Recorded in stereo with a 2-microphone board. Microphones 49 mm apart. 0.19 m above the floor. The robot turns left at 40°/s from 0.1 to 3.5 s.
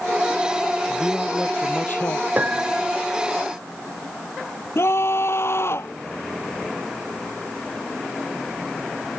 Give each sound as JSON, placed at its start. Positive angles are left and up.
{"t": 0.9, "sound": "a man speaking", "azimuth_deg": 175}
{"t": 2.4, "sound": "a piano", "side_deg": -35}
{"t": 4.8, "sound": "a scream", "side_deg": 60}